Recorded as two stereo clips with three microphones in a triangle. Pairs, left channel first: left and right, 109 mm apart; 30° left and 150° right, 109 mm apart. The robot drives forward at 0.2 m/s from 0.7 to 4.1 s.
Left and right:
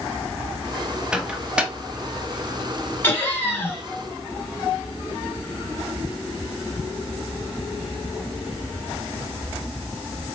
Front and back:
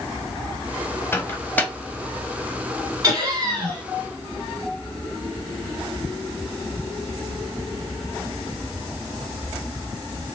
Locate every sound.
1.1 s a microwave: 20° right, 0.8 m; by 1.7 s 25° right, 0.8 m
3.0 s laughter: 160° left, 2.5 m